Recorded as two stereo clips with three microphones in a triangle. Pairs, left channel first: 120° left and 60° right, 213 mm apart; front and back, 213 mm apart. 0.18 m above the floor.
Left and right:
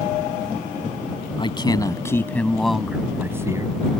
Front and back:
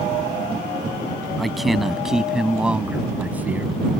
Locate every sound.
1.4 s a man speaking: 90° left; by 3.8 s 110° right